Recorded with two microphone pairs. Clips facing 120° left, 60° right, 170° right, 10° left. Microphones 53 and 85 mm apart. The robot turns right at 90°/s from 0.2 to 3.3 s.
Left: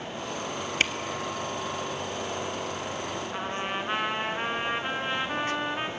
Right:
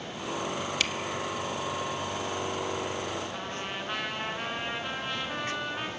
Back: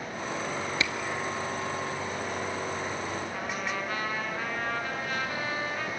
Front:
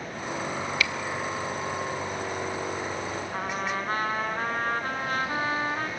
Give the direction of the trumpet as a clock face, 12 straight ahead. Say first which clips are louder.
Left 4 dB, front 3 dB; 10 o'clock.